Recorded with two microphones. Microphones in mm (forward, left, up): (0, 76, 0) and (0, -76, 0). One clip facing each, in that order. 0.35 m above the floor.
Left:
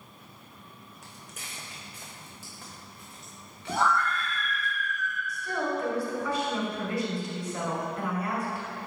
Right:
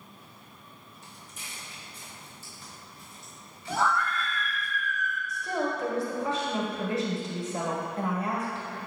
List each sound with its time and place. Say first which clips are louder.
1.0 s footsteps: left 1 dB; 75° left (ahead or behind), 1.2 m; by 4.7 s 70° left (ahead or behind), 3 m
3.7 s a scream: left 1 dB; centre (ahead or behind), 0.9 m
5.3 s a woman speaking: right 1 dB; 25° right (ahead or behind), 1.7 m